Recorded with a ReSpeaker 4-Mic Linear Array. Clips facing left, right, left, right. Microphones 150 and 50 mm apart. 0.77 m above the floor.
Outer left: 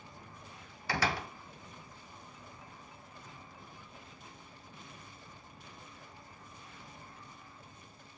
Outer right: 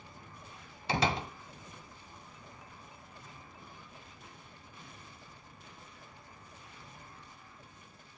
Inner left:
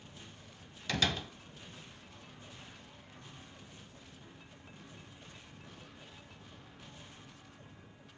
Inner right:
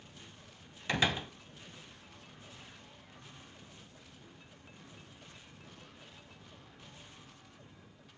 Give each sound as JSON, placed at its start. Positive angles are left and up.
{"t": 0.9, "sound": "a door slam", "side_deg": -20, "distance_m": 0.6}